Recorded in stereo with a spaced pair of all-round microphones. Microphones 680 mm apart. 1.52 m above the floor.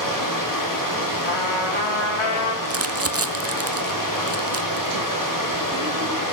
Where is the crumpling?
20° right (ahead or behind), 0.7 m.